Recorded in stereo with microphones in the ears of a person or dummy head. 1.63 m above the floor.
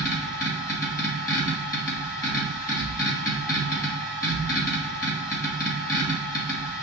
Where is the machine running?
15° left (ahead or behind), 2 m.